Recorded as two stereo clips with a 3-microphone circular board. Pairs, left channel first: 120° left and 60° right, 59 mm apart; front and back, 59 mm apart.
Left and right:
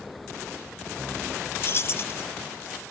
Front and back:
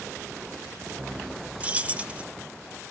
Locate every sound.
1.6 s keys jangling: 125° left, 0.5 m